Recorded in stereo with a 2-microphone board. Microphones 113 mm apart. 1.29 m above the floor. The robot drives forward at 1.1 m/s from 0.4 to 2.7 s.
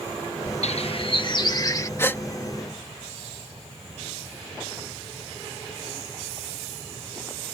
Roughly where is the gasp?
Left.